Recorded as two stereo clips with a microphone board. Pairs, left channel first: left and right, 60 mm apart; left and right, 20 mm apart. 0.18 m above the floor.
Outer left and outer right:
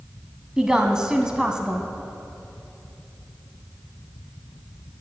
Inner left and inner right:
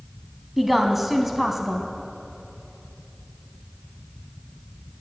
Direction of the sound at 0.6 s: 10° right (ahead or behind).